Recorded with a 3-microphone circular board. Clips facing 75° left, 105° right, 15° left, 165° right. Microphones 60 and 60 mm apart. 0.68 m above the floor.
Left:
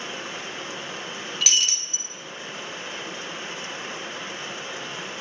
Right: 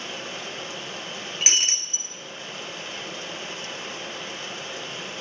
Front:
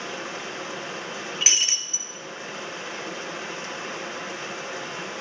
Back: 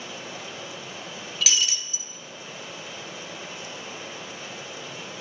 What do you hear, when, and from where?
0.0 s running water: 10° left, 2 m
1.4 s breaking glass: 45° right, 1.5 m